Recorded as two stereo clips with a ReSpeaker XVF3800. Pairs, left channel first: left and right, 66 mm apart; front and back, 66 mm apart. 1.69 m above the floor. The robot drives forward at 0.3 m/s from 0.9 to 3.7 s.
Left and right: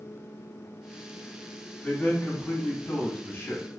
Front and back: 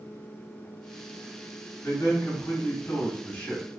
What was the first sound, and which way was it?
A man speaking, 30° left.